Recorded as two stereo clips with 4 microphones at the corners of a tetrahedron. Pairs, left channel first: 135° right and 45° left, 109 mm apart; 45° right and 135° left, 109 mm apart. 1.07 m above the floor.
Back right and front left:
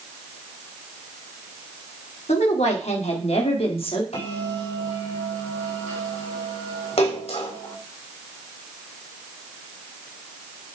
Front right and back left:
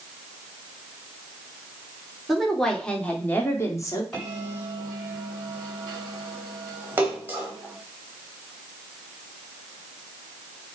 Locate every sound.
2.3 s a woman speaking: 135° right, 2.5 m; by 4.0 s 100° right, 2 m
4.1 s a bell: 130° right, 5.5 m
7.0 s a splash: 155° right, 3 m